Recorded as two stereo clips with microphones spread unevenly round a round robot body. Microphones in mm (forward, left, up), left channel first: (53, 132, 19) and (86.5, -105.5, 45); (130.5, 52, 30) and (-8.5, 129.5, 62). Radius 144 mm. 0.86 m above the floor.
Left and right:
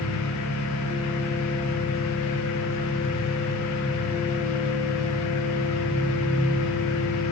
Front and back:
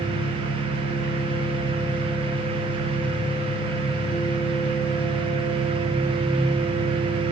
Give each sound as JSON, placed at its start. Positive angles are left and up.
{"t": 0.0, "sound": "an engine running", "azimuth_deg": 30, "distance_m": 6.5}